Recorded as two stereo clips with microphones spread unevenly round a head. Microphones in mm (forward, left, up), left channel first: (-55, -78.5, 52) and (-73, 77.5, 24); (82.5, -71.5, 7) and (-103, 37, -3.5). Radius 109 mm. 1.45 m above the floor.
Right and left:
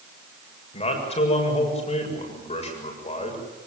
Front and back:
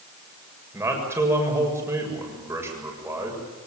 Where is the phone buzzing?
I don't hear a phone buzzing.